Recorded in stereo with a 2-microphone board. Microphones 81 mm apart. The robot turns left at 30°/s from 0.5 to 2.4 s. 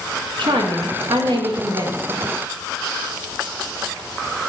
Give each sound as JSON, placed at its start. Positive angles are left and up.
{"t": 0.4, "sound": "a woman speaking", "azimuth_deg": -80, "distance_m": 1.5}